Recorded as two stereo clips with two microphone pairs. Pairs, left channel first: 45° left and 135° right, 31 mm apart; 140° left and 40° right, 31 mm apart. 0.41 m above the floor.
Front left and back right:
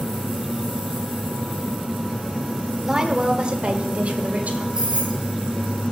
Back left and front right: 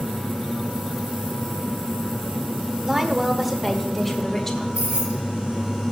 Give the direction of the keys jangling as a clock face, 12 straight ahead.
2 o'clock.